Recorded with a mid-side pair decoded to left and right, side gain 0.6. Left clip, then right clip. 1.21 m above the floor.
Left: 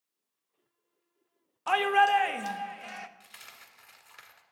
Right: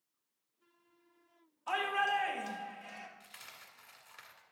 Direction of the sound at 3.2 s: 25° left.